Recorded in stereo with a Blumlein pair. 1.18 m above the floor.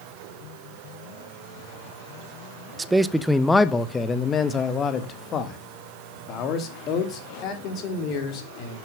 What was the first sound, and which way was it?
A man speaking, 15° right.